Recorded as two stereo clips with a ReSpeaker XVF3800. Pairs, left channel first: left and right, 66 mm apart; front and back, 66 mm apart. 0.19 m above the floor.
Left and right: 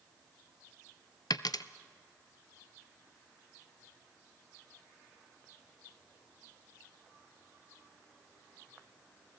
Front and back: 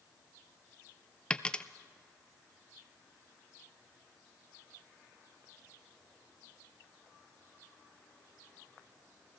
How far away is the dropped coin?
About 0.6 m.